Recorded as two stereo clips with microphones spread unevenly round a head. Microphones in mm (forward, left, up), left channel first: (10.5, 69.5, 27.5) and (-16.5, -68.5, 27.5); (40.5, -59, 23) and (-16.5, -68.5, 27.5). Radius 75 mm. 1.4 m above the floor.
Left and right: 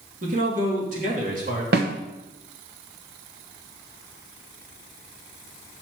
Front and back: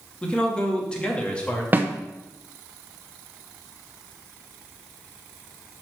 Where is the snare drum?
115° right, 1.1 m.